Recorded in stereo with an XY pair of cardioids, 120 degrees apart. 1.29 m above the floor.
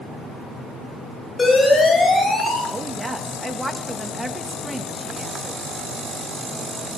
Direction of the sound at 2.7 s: 10° right.